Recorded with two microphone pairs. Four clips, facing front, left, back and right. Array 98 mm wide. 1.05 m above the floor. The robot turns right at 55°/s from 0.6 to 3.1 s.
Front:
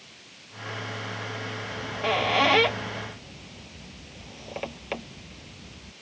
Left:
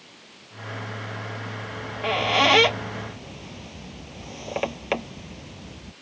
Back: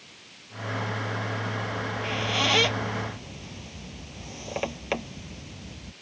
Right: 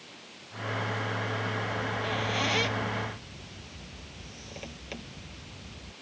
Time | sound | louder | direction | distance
1.7 | a squeak | left 4 dB, front 3 dB | 25° left | ?